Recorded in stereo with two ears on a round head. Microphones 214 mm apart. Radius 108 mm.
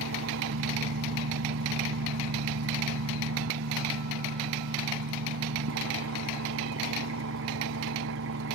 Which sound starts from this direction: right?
An engine running, at 0.0 s.